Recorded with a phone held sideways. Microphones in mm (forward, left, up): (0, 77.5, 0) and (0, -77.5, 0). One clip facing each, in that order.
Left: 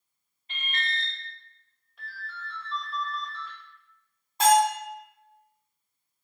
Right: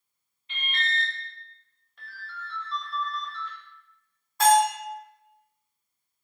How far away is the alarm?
About 0.8 m.